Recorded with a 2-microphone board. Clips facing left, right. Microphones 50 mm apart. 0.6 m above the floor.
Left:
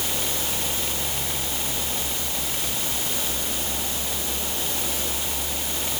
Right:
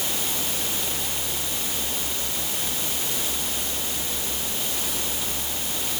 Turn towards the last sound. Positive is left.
No sound to turn to.